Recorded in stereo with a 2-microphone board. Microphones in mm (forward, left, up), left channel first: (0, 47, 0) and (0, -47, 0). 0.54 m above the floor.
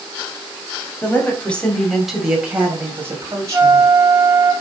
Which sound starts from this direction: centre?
A flute, at 3.5 s.